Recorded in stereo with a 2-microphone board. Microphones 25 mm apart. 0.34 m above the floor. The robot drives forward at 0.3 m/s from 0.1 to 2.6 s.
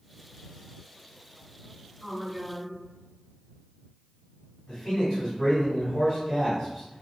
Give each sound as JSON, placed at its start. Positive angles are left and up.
{"t": 2.0, "sound": "a woman speaking", "side_deg": 15, "distance_m": 1.1}
{"t": 4.7, "sound": "a man speaking", "side_deg": 10, "distance_m": 1.8}